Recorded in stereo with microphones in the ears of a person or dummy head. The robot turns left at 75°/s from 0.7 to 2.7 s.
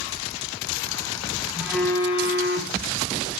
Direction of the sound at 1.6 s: 170° right.